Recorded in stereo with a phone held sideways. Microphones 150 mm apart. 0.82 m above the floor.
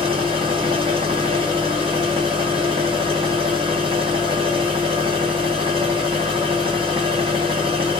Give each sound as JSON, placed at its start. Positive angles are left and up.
{"t": 0.0, "sound": "a machine running", "side_deg": -40, "distance_m": 1.2}